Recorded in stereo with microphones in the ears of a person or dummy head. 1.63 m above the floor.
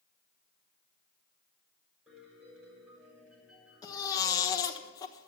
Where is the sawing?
I don't hear sawing.